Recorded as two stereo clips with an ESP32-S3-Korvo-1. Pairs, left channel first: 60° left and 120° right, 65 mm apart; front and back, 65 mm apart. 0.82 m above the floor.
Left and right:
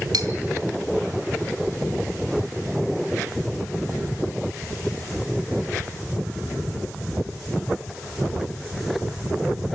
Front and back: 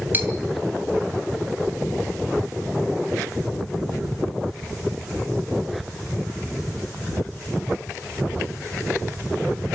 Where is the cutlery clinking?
120° right, 2.5 m.